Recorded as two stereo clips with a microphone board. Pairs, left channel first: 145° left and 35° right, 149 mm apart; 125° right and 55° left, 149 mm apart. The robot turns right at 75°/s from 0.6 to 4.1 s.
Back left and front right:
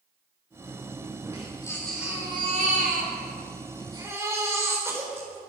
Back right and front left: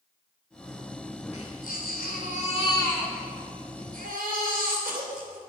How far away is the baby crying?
About 4 m.